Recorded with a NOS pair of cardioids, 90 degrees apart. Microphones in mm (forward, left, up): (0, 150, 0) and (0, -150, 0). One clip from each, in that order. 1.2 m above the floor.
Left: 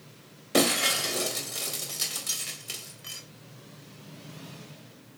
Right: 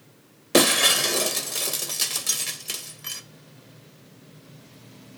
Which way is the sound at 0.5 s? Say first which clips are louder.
Right 6 dB; 45° right.